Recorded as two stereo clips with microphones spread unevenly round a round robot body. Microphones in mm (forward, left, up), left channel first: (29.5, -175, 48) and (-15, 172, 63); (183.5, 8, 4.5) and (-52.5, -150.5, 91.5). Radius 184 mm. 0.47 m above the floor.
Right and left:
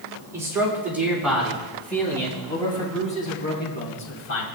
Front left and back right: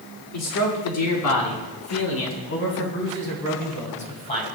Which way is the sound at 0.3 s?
15° left.